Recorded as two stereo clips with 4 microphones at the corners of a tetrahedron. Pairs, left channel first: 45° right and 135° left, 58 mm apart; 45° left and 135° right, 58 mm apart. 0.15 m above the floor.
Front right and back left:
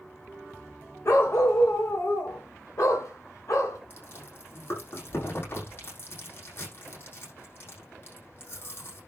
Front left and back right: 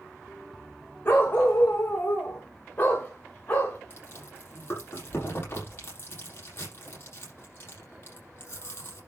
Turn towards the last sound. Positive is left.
turn(degrees=0)